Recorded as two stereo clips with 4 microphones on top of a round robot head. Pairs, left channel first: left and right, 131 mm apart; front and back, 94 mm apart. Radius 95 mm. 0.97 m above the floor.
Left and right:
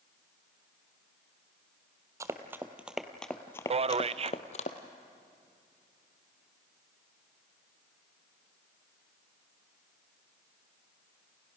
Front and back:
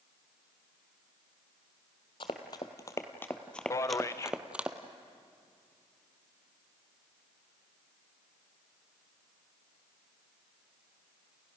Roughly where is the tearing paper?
No tearing paper in this recording.